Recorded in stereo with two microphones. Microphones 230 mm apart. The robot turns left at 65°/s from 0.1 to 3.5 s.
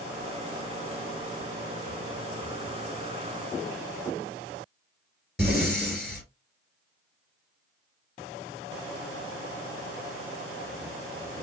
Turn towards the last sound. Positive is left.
turn(degrees=0)  # may be behind; listen again after turning